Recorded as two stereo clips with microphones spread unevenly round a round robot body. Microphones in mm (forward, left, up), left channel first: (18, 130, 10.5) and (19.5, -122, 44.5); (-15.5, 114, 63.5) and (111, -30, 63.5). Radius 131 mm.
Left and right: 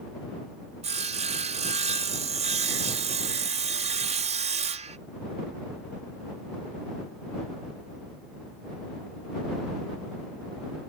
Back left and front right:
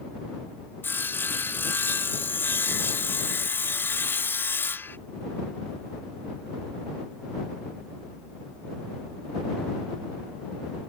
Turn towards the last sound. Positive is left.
turn(degrees=-155)